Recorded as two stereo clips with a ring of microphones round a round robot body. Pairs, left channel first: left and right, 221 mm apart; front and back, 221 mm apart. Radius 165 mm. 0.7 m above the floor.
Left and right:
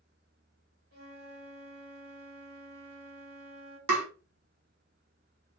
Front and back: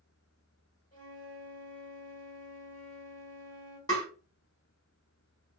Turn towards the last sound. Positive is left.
turn(degrees=-80)